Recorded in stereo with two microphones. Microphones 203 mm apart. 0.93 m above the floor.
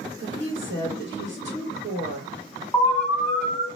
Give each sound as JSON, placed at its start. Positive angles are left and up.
{"t": 0.2, "sound": "a woman speaking", "side_deg": -65, "distance_m": 1.1}
{"t": 2.7, "sound": "an alarm", "side_deg": 5, "distance_m": 1.4}